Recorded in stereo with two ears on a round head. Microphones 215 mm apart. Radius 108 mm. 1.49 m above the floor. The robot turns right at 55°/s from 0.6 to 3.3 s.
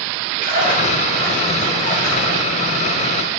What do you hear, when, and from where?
0.4 s a splash: 35° right, 3 m; by 2.4 s 60° left, 3 m